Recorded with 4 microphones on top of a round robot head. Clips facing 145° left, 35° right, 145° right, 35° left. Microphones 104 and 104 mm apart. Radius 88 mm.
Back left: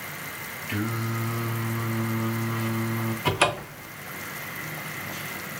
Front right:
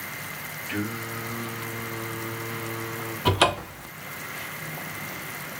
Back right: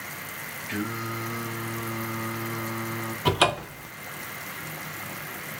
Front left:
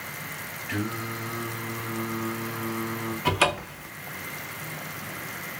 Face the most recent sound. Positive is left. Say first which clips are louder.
# front right 3 dB, back right 2 dB
turn(degrees=-90)